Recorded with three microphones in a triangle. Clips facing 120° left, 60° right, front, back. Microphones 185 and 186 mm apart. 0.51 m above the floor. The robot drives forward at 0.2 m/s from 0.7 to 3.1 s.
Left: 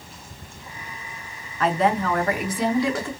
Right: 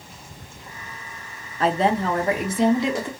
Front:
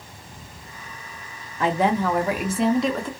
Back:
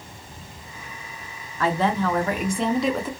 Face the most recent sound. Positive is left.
turn(degrees=-100)